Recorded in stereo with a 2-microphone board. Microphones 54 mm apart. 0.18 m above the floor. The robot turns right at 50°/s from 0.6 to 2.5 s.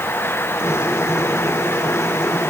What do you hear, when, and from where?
Only background noise.